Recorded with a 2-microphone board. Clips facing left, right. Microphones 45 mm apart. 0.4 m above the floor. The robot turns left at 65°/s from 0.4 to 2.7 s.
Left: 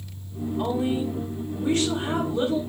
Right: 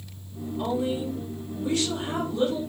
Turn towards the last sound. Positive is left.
turn(degrees=20)